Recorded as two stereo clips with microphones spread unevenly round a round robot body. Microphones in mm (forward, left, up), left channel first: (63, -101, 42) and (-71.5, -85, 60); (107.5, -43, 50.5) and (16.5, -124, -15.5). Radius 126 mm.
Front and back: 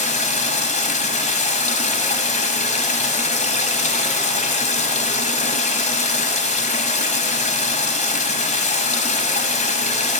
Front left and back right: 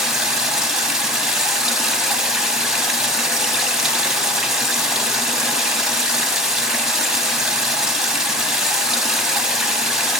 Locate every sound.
0.0 s running water: 45° right, 0.8 m